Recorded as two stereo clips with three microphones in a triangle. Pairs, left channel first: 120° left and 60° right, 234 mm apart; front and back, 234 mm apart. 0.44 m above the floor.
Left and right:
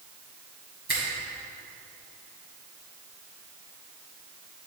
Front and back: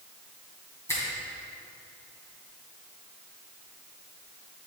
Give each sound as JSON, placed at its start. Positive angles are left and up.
{"t": 0.9, "sound": "a finger snap", "azimuth_deg": -75, "distance_m": 2.0}